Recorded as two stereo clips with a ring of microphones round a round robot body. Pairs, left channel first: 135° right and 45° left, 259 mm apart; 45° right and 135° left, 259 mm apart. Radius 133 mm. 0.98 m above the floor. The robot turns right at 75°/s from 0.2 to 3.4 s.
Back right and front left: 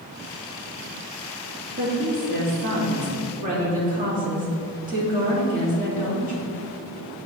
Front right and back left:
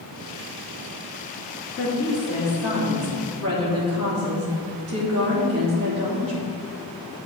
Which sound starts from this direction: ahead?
A woman speaking, at 1.8 s.